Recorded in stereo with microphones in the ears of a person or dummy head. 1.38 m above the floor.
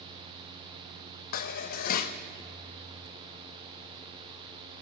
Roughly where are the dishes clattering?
Left.